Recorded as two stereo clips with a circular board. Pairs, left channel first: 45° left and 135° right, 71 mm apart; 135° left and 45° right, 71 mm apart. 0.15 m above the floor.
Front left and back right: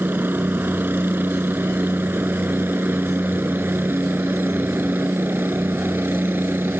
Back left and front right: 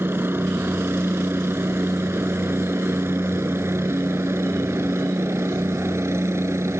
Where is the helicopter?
90° right; by 6.8 s 85° right.